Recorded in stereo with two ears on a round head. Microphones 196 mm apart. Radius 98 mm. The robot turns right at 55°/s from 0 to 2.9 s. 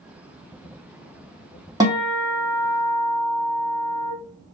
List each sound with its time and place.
1.8 s a guitar: 20° right, 1.4 m; by 4.1 s 40° left, 1.4 m